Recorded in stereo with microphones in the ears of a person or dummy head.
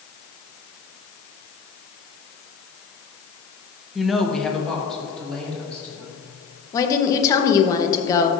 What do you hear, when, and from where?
4.0 s a woman speaking: 5° right (ahead or behind), 0.8 m; by 6.1 s 5° left (ahead or behind), 3 m
6.7 s a woman speaking: 20° left (ahead or behind), 0.9 m